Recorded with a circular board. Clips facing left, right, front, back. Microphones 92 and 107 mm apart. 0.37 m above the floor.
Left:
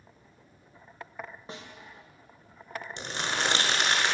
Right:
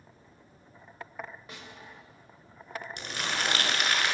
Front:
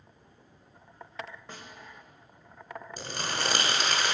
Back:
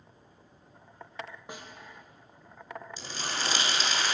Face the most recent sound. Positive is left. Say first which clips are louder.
# left 2 dB, front 3 dB
turn(degrees=25)